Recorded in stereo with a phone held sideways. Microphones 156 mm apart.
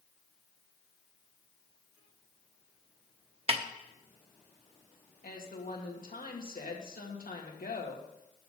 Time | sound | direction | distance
3.5 | a snare drum | 40° right (ahead or behind) | 0.9 m
5.2 | a woman speaking | 70° left (ahead or behind) | 2 m